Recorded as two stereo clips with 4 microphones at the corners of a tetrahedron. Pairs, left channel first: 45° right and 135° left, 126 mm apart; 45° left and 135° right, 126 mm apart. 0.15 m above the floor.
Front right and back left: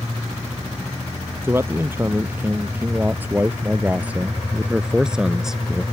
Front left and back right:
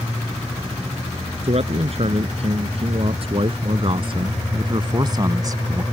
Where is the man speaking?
155° right; by 5.8 s 135° right.